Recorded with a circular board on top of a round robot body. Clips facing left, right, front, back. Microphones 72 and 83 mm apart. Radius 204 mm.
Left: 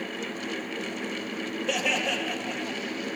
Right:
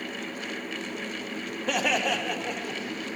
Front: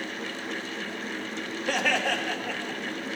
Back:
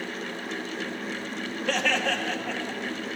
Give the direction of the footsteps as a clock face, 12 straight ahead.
No footsteps in this recording.